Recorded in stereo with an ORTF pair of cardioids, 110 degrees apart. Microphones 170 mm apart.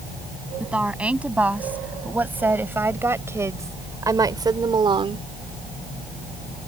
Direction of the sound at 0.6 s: 5° right.